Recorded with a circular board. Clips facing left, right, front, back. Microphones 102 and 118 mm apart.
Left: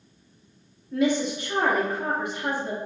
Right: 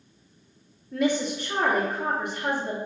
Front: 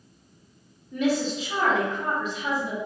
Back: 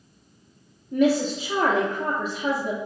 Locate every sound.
0.9 s a woman speaking: straight behind, 0.6 m